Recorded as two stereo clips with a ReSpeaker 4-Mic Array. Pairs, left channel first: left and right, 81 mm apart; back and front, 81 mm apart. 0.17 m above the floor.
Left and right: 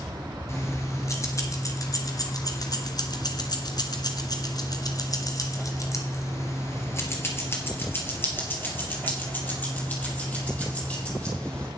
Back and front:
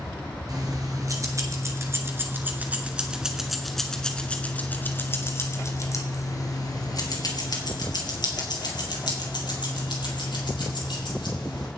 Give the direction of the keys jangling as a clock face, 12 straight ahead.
11 o'clock.